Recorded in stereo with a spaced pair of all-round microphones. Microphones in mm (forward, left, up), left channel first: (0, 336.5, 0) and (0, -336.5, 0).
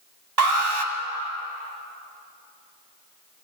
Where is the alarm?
35° right (ahead or behind), 2 m.